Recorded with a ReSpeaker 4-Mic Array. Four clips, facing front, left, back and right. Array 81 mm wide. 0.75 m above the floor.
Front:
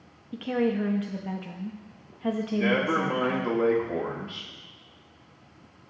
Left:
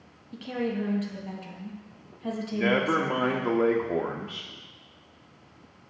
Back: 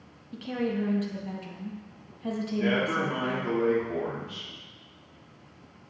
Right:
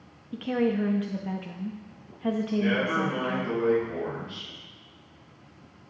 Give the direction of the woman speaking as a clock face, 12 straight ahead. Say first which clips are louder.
Right 4 dB, front 4 dB; 1 o'clock.